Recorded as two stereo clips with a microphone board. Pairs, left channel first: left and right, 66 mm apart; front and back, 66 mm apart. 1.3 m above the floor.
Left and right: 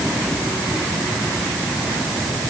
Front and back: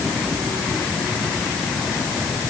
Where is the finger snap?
No finger snap in this recording.